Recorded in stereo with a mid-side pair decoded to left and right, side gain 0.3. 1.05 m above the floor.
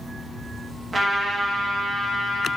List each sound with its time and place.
0.9 s a trumpet: 45° right, 0.6 m